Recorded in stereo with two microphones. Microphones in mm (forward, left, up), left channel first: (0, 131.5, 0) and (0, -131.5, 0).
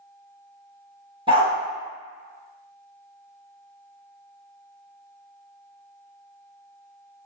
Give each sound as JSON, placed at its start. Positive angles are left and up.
{"t": 1.3, "sound": "a dog barking", "side_deg": -20, "distance_m": 1.5}